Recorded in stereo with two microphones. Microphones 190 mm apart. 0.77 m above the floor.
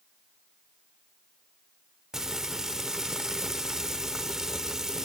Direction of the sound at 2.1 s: 5° right (ahead or behind).